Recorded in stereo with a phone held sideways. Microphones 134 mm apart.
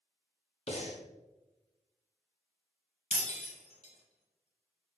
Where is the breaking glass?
60° left (ahead or behind), 1.4 m.